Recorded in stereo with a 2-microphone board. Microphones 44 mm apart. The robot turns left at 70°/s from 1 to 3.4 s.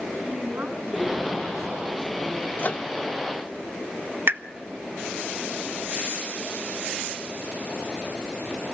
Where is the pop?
55° right (ahead or behind), 1.1 m.